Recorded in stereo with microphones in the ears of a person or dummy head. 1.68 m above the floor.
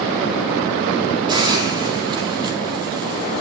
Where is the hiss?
25° right (ahead or behind), 3.5 m.